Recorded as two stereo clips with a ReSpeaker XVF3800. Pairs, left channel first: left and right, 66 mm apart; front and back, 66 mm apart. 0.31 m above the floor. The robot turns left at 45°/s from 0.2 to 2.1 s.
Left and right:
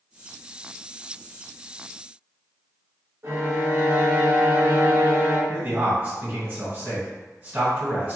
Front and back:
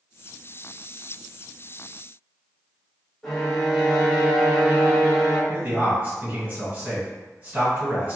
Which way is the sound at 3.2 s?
80° right.